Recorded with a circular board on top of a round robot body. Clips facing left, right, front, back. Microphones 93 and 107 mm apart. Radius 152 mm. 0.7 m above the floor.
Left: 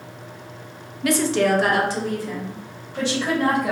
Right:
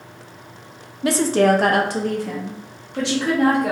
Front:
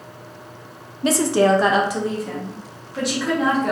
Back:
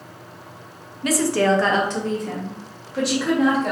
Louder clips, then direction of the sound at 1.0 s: Right 3 dB, front 2 dB; 40° right.